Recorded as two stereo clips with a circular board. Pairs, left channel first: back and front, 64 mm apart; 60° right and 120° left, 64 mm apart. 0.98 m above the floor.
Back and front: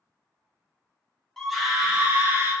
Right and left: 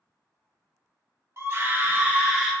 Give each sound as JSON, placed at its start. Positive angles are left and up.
{"t": 1.4, "sound": "a scream", "azimuth_deg": 95, "distance_m": 0.9}